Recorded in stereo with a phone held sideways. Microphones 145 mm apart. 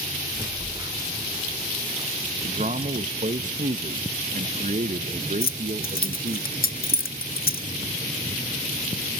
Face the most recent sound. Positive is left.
turn(degrees=75)  # may be behind; listen again after turning